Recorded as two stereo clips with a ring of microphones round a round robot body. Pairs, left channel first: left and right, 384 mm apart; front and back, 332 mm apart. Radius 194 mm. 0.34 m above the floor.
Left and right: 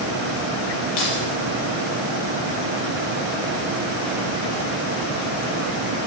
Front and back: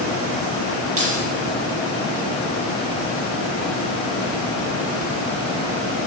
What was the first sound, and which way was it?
Keys jangling, 130° left.